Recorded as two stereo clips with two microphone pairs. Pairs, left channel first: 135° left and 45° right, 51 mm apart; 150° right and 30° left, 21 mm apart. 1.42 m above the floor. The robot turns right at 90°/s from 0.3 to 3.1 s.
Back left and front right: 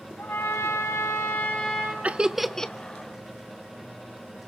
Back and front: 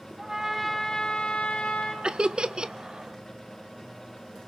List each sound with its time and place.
0.2 s a trumpet: 95° left, 5.5 m; by 1.9 s 115° right, 5.5 m
2.0 s laughter: 10° left, 0.6 m; by 2.8 s 75° left, 0.6 m